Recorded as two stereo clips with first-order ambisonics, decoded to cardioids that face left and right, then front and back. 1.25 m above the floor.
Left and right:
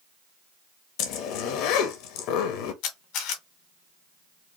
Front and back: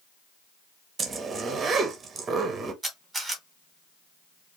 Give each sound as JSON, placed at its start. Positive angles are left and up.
{"t": 1.0, "sound": "a zipper", "azimuth_deg": 110, "distance_m": 1.0}
{"t": 2.8, "sound": "a camera shutter", "azimuth_deg": 95, "distance_m": 1.9}